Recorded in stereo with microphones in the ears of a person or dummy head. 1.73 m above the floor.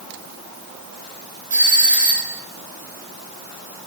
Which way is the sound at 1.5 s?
30° right (ahead or behind).